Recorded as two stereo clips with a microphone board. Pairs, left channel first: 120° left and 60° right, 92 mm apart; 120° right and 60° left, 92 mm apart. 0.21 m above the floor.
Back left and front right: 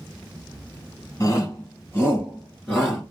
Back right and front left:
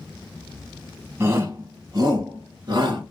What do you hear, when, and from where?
1.2 s a shout: 105° left, 1.3 m; by 3.0 s 45° left, 1.7 m